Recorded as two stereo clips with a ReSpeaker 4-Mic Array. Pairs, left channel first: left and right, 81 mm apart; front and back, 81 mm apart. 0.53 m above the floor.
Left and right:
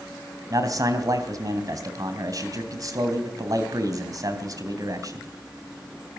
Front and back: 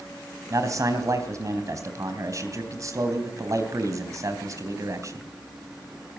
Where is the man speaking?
130° right, 3 m.